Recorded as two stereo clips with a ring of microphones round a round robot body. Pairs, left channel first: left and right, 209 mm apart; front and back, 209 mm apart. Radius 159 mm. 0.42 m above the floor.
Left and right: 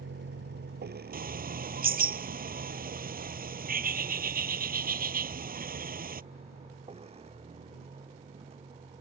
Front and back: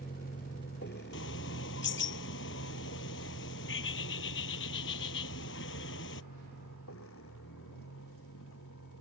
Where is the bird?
45° right.